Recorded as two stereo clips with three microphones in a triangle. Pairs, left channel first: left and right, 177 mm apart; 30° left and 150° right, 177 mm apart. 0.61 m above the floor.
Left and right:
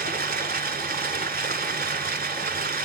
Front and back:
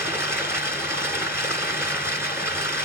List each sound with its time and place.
0.0 s running water: 75° right, 1.5 m